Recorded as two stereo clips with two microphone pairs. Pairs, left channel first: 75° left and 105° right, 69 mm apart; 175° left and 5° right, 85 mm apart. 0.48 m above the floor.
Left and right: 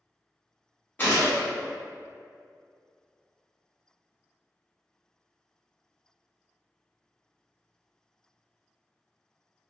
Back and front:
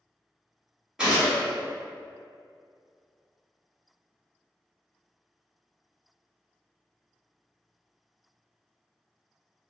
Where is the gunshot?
70° left, 1.3 m.